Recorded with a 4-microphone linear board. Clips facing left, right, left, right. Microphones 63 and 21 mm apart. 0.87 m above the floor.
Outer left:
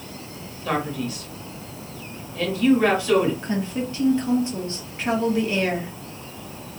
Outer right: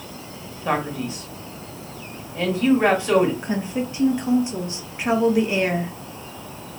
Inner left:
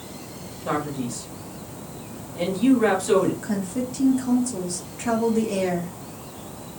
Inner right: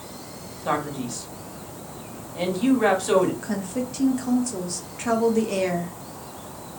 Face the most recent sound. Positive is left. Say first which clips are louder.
# outer right 1 dB, inner left 1 dB
turn(degrees=-15)  # may be behind; listen again after turning